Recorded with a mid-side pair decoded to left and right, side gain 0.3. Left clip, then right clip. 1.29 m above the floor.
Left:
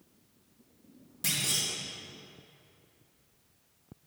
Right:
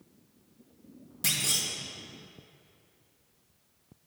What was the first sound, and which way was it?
A clunk, 35° right.